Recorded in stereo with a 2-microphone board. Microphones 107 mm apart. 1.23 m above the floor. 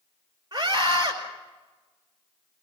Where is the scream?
40° right (ahead or behind), 5 m.